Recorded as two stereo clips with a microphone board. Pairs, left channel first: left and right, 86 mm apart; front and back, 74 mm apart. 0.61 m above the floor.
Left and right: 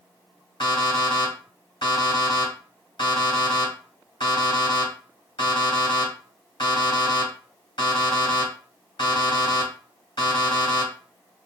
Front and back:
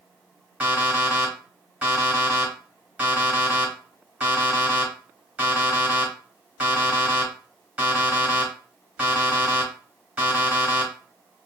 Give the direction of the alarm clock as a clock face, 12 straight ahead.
8 o'clock.